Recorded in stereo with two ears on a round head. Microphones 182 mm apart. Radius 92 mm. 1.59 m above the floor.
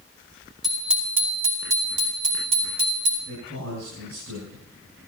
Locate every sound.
0.6 s a bicycle bell: centre (ahead or behind), 3.5 m; by 3.1 s 40° right (ahead or behind), 4.5 m
3.2 s a man speaking: 70° right (ahead or behind), 9 m